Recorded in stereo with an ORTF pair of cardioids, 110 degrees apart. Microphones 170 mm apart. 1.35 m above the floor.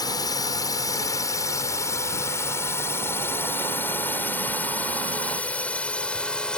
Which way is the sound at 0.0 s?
25° left.